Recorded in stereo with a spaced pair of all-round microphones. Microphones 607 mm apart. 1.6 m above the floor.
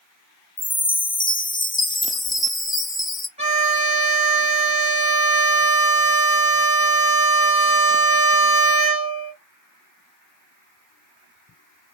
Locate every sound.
0.6 s a chime: 15° left (ahead or behind), 0.5 m
3.4 s a violin: 10° right (ahead or behind), 2.5 m